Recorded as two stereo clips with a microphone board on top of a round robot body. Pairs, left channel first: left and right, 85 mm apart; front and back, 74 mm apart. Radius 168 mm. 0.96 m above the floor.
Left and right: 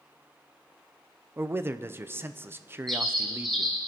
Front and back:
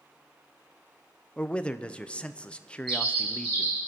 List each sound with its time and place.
1.4 s a man speaking: 60° right, 0.8 m
2.9 s a bird: 175° left, 2 m